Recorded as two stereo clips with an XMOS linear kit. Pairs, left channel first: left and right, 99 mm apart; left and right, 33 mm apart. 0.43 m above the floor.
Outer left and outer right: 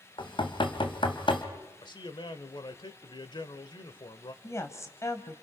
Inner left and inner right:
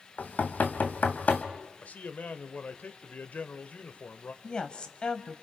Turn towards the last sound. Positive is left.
turn(degrees=30)  # may be behind; listen again after turning